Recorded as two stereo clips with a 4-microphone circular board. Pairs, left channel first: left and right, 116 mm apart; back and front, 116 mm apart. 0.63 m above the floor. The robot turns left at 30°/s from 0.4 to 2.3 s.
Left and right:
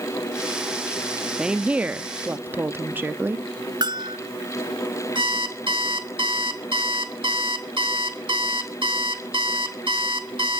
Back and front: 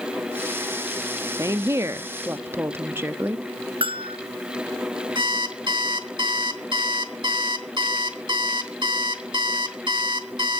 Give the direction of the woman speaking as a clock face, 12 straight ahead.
12 o'clock.